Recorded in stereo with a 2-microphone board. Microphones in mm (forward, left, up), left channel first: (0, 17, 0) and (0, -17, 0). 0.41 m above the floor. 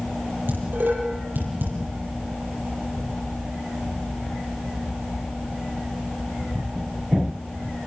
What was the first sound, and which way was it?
Dishes clattering, 85° right.